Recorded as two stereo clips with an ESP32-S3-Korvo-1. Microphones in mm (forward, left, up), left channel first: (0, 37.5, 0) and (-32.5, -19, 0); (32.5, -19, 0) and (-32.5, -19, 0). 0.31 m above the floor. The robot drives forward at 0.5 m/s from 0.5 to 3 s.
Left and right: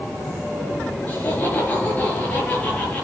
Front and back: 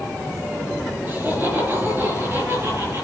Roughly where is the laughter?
Behind left.